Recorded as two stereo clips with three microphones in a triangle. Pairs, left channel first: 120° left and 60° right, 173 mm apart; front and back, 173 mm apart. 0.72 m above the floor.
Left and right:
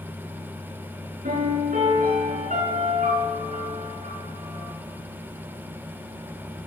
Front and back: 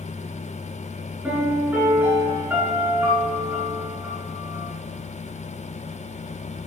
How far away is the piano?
About 9 m.